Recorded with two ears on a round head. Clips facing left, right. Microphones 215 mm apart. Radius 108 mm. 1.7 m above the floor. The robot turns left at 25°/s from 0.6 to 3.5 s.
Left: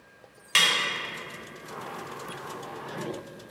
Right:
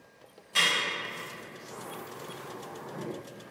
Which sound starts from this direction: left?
A snare drum, at 0.6 s.